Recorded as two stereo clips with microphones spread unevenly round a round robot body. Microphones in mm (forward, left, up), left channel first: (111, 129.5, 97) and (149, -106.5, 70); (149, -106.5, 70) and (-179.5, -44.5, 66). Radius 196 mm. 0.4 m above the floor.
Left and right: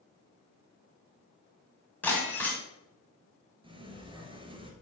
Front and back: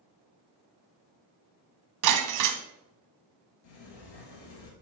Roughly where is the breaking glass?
Behind.